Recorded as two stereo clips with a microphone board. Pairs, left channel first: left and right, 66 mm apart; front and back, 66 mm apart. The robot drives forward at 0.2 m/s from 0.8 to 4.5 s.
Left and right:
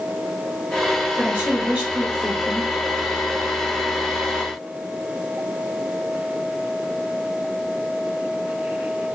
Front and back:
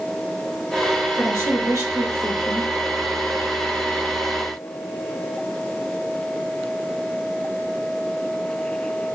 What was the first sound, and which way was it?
A woman speaking, 160° right.